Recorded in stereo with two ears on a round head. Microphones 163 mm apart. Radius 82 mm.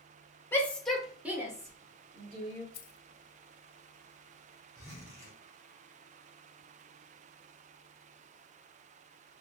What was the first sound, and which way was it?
A shout, 10° left (ahead or behind).